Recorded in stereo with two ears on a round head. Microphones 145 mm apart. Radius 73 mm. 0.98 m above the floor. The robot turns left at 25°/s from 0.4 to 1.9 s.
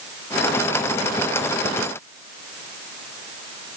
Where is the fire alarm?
I don't hear a fire alarm.